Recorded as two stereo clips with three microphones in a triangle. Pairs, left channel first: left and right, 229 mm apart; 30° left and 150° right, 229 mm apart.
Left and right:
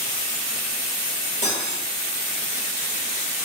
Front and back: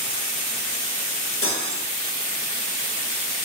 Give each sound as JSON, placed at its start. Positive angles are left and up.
{"t": 1.4, "sound": "cutlery clinking", "azimuth_deg": 35, "distance_m": 0.6}